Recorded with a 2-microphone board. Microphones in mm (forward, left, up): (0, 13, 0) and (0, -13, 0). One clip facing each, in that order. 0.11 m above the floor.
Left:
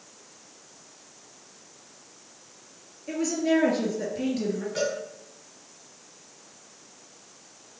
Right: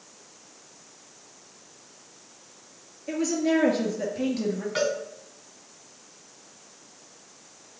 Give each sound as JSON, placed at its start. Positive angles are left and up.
{"t": 3.1, "sound": "a woman speaking", "side_deg": -5, "distance_m": 2.0}
{"t": 4.8, "sound": "a cowbell", "side_deg": -30, "distance_m": 3.5}